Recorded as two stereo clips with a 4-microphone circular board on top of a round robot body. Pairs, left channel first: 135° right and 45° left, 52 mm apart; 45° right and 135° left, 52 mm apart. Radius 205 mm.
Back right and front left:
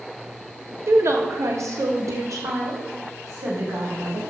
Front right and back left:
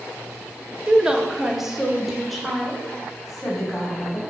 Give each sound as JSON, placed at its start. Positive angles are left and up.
{"t": 0.9, "sound": "a woman speaking", "azimuth_deg": 65, "distance_m": 1.4}